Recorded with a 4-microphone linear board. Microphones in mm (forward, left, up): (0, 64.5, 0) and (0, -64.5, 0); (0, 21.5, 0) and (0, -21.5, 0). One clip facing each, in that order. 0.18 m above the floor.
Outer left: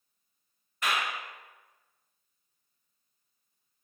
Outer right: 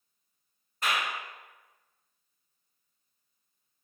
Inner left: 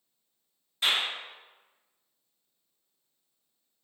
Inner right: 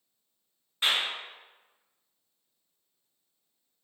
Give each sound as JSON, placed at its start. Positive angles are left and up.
{"t": 0.8, "sound": "a clap", "side_deg": -35, "distance_m": 1.5}